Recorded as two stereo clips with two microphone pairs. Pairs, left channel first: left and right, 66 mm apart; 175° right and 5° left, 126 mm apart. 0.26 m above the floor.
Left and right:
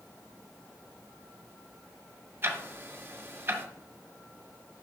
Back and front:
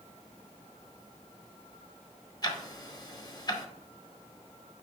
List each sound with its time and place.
2.4 s ticking: 135° right, 1.0 m